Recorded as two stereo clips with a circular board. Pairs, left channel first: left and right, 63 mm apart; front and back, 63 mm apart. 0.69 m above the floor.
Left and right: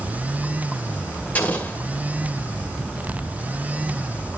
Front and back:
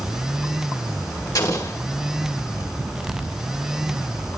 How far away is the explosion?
About 2.5 m.